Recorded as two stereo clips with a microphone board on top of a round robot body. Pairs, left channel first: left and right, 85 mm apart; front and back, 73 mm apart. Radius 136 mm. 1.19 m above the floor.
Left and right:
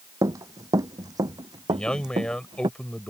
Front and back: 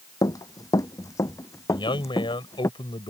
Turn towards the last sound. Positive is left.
turn(degrees=10)